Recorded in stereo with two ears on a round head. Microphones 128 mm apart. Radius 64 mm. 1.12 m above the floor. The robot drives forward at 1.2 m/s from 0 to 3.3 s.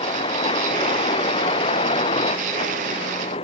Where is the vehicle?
35° left (ahead or behind); by 3.4 s 40° left (ahead or behind).